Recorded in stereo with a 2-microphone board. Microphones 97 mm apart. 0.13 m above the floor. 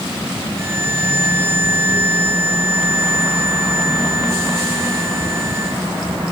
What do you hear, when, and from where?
0.6 s a violin: 25° right (ahead or behind)